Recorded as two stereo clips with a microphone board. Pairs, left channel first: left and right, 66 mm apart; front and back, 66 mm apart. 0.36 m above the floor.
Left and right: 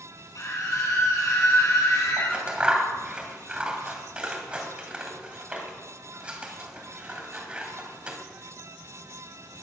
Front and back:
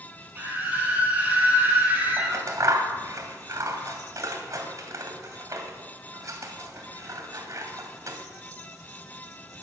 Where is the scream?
120° left, 7 m.